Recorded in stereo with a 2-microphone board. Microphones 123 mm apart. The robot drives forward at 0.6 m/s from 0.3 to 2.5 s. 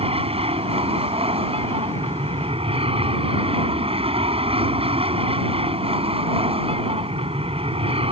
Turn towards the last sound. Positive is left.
turn(degrees=-50)  # may be behind; listen again after turning